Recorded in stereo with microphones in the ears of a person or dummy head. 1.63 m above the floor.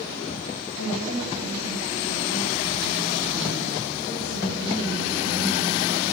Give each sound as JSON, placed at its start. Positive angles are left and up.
{"t": 0.8, "sound": "a woman speaking", "side_deg": 75, "distance_m": 9.0}